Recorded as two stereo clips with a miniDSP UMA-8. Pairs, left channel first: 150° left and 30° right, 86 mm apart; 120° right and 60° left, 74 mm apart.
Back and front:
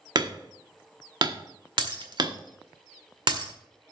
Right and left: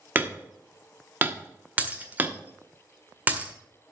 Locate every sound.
0.1 s hammering: straight ahead, 1.1 m
1.8 s breaking glass: 10° right, 1.7 m